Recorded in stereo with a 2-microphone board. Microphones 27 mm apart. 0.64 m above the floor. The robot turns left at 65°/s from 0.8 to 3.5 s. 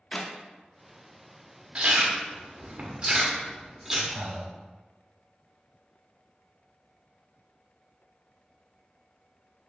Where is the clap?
30° left (ahead or behind), 0.6 m.